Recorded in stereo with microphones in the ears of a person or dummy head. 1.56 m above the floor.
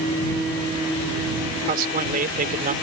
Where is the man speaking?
45° right (ahead or behind).